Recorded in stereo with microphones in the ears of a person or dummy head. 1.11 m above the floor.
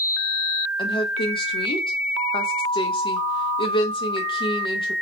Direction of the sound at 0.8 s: 25° left (ahead or behind).